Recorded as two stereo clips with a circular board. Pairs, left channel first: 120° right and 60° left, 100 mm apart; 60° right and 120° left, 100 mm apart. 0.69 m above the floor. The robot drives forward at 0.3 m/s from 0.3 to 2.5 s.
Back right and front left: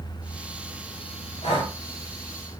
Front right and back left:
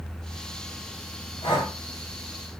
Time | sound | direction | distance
1.4 | breathing | 100° right | 1.1 m